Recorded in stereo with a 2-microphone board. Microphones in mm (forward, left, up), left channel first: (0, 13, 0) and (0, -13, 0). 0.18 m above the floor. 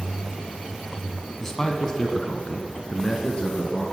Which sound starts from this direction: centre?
A man speaking, at 1.4 s.